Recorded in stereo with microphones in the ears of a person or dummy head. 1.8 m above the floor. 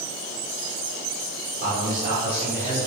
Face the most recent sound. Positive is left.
turn(degrees=-30)  # may be behind; listen again after turning